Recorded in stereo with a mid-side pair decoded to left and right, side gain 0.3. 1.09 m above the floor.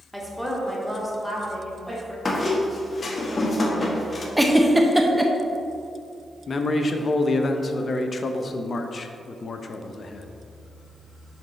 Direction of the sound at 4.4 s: 10° right.